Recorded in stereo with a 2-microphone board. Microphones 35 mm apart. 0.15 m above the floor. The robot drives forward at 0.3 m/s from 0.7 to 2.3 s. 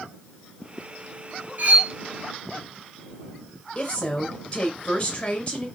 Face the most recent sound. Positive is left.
turn(degrees=25)  # may be behind; listen again after turning